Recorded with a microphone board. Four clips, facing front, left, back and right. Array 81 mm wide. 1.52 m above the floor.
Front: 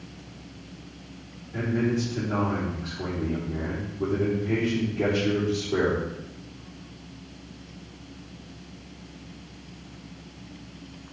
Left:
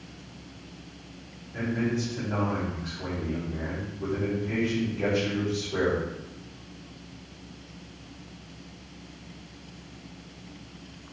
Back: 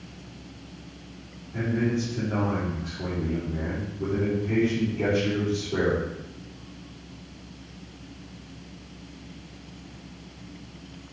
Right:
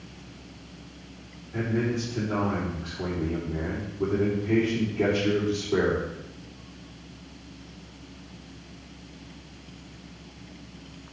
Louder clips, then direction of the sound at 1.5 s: Right 1 dB, even; 60° right.